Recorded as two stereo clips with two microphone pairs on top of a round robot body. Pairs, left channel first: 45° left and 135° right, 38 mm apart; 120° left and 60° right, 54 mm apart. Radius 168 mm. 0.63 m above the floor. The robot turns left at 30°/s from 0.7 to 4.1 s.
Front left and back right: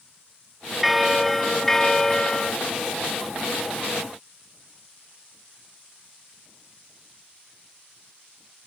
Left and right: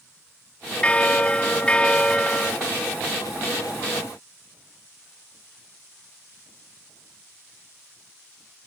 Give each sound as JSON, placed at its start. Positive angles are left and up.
{"t": 0.8, "sound": "a bell", "azimuth_deg": 130, "distance_m": 1.2}